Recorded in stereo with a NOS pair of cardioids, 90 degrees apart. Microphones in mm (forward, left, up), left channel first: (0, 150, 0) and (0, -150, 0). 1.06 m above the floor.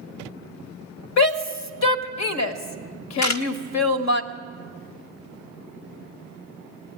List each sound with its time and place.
1.2 s a shout: 65° left, 1.2 m
3.2 s a camera shutter: 65° left, 1.0 m